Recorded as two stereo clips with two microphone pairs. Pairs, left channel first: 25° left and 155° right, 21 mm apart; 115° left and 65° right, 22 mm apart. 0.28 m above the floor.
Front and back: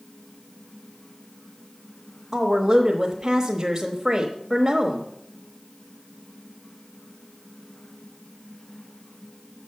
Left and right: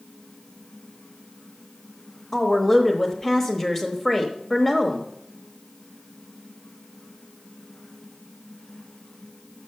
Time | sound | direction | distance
2.3 | a woman speaking | 170° left | 1.0 m